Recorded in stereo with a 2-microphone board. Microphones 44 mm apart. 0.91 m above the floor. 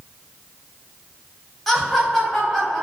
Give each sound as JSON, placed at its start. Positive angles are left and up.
{"t": 1.7, "sound": "laughter", "side_deg": 5, "distance_m": 1.2}